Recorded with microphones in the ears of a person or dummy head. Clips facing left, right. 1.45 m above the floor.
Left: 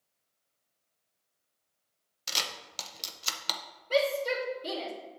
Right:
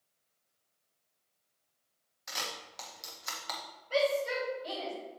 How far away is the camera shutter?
About 0.8 m.